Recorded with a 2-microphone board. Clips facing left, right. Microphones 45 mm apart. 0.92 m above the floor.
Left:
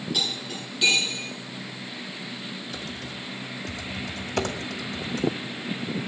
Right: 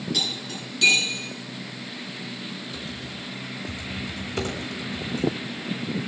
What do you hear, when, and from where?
0.1 s cutlery clinking: 10° left (ahead or behind), 7.5 m
2.7 s typing on a keyboard: 75° left (ahead or behind), 2.0 m